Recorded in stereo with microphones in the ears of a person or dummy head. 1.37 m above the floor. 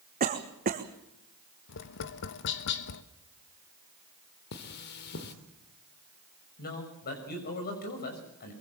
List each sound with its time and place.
0.2 s a cough: 45° right (ahead or behind), 1.4 m
1.7 s tapping: 60° left (ahead or behind), 1.1 m
4.5 s cutlery clinking: 55° left (ahead or behind), 2.5 m
6.6 s a man speaking: 50° left (ahead or behind), 6 m